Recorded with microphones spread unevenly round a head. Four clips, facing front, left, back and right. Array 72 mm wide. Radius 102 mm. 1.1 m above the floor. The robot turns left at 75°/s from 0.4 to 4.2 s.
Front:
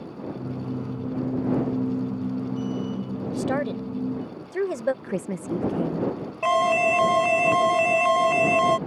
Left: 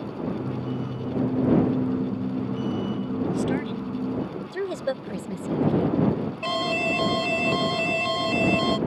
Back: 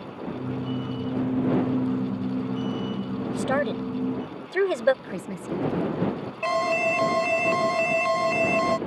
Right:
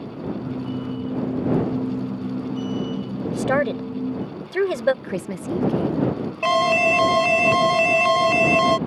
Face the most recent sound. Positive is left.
turn(degrees=-75)